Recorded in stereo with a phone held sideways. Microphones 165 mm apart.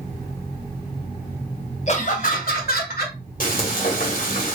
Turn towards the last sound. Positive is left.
turn(degrees=60)  # may be behind; listen again after turning